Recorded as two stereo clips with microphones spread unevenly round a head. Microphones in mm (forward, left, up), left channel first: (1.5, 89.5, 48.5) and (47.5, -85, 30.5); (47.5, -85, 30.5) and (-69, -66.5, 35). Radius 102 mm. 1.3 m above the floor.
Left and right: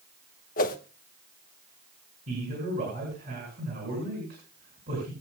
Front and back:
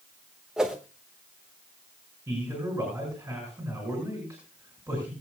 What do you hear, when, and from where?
0.6 s a whoosh: 85° left, 1.2 m
2.3 s a man speaking: 115° right, 8 m